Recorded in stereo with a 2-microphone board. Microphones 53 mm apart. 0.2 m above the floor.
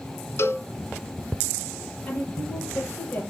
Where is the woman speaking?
30° left (ahead or behind), 6 m.